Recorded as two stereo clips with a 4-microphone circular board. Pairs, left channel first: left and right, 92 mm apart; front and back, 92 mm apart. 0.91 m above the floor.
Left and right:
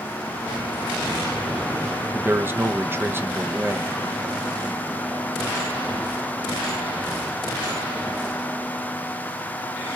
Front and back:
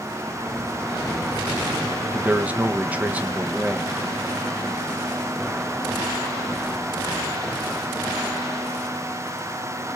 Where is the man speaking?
125° right, 0.6 m.